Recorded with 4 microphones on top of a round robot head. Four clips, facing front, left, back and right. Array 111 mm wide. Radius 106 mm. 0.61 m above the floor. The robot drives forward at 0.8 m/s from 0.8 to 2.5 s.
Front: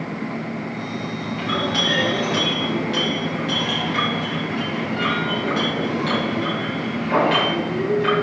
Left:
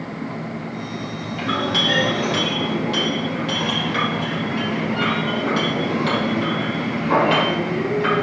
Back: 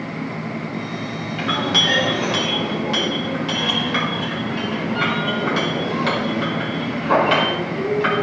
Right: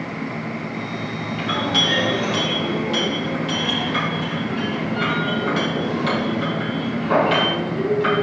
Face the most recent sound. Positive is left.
turn(degrees=170)